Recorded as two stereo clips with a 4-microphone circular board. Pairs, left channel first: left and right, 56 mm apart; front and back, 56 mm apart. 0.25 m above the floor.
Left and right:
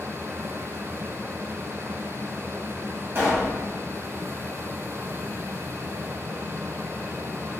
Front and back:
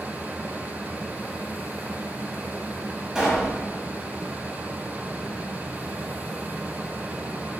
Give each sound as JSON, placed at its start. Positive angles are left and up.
{"t": 3.1, "sound": "a pop", "azimuth_deg": -105, "distance_m": 1.3}